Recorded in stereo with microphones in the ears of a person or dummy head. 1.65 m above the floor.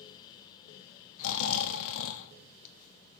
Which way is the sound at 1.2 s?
80° left.